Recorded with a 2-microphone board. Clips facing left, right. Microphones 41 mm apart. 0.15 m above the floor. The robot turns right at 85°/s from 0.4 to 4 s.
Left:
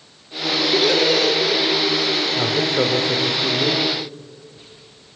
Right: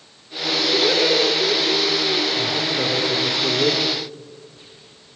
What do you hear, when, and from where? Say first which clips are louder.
0.7 s laughter: left 1 dB; 175° right, 2.5 m; by 2.2 s 45° right, 2.5 m
2.3 s a man speaking: left 3 dB; 75° left, 4 m; by 3.8 s 155° right, 4 m